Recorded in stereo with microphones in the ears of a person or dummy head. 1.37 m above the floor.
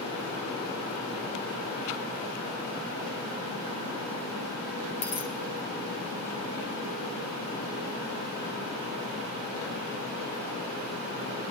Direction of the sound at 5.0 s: 50° left (ahead or behind).